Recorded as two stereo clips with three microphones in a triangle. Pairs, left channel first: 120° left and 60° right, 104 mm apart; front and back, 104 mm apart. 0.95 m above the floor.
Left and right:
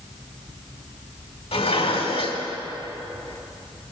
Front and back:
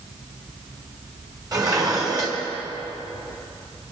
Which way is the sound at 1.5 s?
130° left.